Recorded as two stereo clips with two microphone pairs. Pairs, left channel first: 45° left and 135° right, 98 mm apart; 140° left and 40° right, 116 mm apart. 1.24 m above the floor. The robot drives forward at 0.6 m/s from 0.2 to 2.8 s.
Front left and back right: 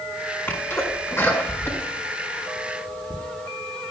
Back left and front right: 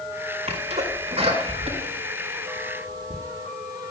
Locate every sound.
0.5 s a sneeze: 20° right, 5 m; by 3.1 s 25° right, 4 m